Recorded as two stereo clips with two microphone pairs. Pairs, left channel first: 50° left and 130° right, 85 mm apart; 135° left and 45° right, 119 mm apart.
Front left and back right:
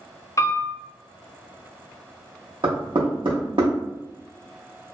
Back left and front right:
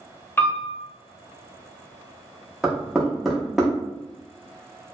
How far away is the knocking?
About 0.8 m.